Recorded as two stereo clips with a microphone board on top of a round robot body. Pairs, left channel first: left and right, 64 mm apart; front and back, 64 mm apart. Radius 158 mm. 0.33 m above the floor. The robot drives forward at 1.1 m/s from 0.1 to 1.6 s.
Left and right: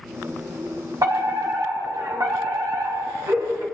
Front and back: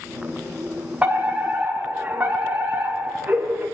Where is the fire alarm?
110° right, 5.5 m; by 3.6 s 120° right, 5.5 m.